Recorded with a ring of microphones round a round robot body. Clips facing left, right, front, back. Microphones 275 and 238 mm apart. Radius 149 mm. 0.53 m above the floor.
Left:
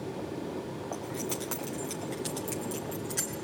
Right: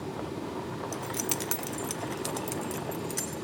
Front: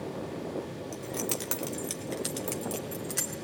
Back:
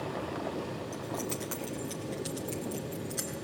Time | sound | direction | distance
0.9 | keys jangling | 70° right | 1.3 m